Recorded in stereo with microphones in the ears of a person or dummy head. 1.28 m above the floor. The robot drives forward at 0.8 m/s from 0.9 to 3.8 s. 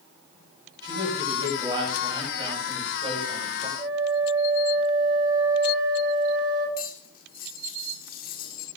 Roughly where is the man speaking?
Right.